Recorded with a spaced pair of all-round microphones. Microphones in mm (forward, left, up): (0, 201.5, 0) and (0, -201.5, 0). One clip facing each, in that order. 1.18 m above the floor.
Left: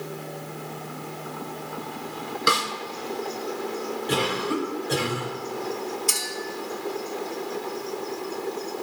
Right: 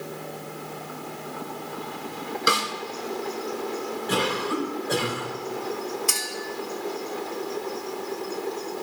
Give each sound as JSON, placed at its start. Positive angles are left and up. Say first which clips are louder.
{"t": 2.5, "sound": "a snare drum", "louder": "even", "side_deg": 5, "distance_m": 0.8}
{"t": 4.1, "sound": "a cough", "louder": "left 1 dB", "side_deg": 45, "distance_m": 2.5}
{"t": 6.1, "sound": "a clink", "louder": "even", "side_deg": -70, "distance_m": 1.7}